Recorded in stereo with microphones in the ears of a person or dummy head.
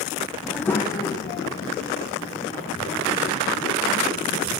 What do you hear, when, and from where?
0.4 s a child speaking: 5° right (ahead or behind), 0.5 m; by 4.5 s 50° left (ahead or behind), 3 m